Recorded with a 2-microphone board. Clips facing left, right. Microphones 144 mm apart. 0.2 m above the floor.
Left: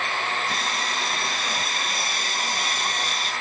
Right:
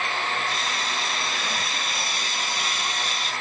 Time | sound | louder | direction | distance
0.5 | sawing | left 1 dB | 50° left (ahead or behind) | 1.9 m